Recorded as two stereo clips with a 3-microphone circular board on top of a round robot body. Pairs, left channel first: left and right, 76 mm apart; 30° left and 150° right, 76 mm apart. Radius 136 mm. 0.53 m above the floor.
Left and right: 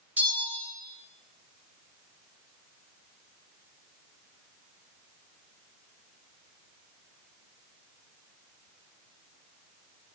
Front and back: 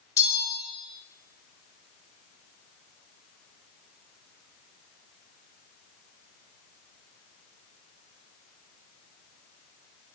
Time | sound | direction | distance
0.2 | a bell | 20° right | 0.5 m